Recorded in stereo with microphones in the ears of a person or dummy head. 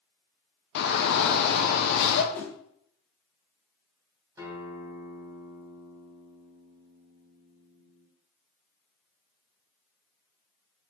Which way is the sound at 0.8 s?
60° left (ahead or behind).